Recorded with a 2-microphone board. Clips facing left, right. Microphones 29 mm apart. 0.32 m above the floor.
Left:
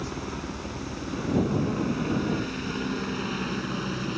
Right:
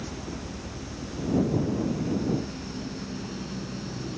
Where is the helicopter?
45° left (ahead or behind); by 4.2 s 60° left (ahead or behind).